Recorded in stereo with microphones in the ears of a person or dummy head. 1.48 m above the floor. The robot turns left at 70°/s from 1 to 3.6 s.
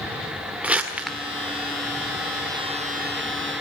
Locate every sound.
0.6 s crumpling: 5° right (ahead or behind), 1.4 m; by 1.2 s 5° left (ahead or behind), 1.4 m